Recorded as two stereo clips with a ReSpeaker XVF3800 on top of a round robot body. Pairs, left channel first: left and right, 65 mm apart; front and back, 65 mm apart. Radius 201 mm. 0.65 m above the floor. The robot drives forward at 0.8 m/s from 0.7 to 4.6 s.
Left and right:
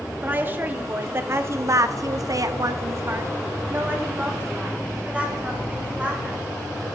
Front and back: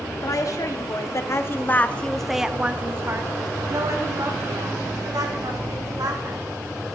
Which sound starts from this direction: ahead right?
A woman speaking, at 0.2 s.